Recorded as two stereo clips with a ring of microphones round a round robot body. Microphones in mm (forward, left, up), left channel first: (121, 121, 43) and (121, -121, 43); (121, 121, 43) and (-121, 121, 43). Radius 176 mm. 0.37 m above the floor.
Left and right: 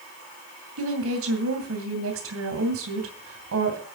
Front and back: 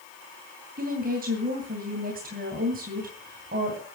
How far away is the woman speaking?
About 2.5 m.